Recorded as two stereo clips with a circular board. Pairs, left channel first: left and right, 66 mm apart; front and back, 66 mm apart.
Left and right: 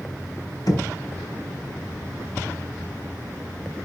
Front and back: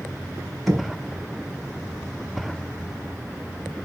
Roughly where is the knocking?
Left.